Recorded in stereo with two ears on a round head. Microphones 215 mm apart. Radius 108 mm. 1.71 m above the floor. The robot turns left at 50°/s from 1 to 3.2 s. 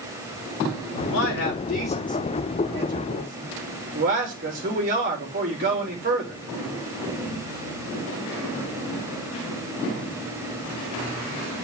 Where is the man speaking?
75° left, 4.5 m; by 6.4 s 35° right, 4.5 m.